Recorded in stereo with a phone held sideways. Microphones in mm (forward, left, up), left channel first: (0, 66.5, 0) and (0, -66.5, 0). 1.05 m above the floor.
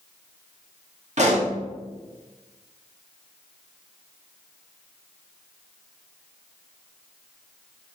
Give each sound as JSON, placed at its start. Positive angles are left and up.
{"t": 1.2, "sound": "a pop", "side_deg": -55, "distance_m": 2.0}